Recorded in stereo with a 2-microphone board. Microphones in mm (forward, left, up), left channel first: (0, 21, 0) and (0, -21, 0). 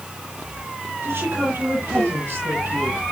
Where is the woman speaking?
75° right (ahead or behind), 8 m.